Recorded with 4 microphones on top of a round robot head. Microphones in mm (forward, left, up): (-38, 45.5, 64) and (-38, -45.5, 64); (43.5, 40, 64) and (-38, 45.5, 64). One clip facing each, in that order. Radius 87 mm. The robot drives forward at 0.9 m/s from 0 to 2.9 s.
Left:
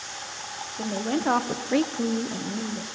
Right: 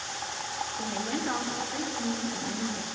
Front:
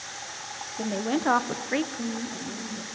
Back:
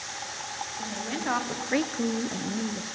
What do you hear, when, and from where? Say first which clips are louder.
0.8 s a woman speaking: left 7 dB, front 8 dB; 30° left, 1.0 m; by 3.0 s 155° left, 1.1 m